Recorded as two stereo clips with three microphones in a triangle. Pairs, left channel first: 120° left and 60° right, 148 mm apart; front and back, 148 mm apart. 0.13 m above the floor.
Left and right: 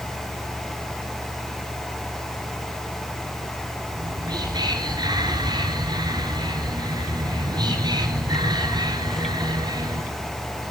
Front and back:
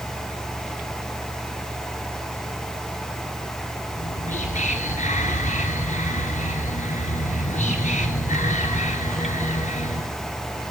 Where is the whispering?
5° right, 1.9 m.